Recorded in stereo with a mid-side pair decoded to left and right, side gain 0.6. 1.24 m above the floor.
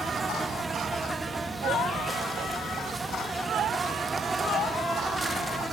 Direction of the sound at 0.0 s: 15° right.